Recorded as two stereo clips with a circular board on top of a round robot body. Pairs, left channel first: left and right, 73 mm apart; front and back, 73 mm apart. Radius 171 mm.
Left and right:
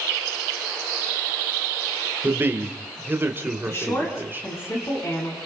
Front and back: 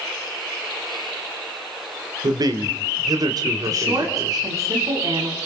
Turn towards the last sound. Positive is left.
turn(degrees=145)